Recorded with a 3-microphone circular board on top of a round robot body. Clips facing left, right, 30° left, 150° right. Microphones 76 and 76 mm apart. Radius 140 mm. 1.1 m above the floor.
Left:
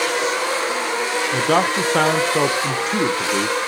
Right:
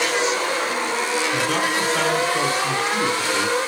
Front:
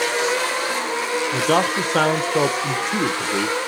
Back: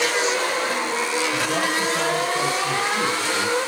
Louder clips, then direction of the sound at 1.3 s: Left 4 dB, front 4 dB; 50° left.